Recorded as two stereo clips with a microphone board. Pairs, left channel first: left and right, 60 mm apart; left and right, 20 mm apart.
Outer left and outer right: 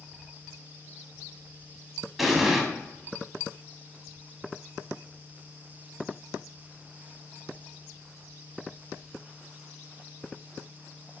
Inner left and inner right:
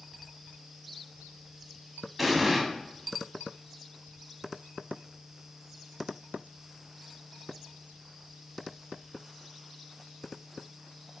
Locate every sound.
2.2 s an explosion: centre (ahead or behind), 0.5 m